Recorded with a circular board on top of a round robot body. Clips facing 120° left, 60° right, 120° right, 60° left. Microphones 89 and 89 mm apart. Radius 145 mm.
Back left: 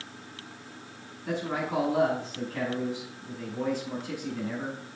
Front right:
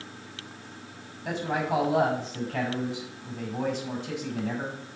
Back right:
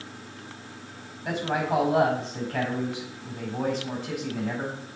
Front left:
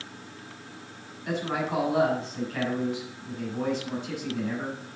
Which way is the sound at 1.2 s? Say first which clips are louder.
Front right 2 dB, back right 2 dB; 80° right.